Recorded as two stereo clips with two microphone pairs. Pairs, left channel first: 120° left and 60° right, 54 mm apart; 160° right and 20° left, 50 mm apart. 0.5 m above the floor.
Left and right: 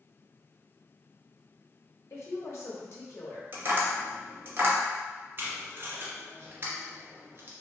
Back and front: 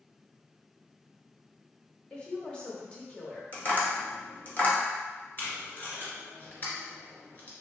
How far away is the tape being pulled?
About 1.2 m.